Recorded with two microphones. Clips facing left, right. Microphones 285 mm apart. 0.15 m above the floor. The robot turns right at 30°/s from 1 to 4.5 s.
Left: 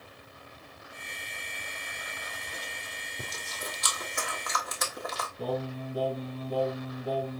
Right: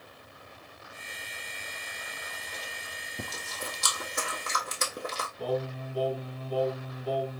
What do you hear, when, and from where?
3.2 s chewing: 70° right (ahead or behind), 1.2 m; by 5.3 s 35° right (ahead or behind), 1.2 m
5.4 s singing: 25° left (ahead or behind), 1.6 m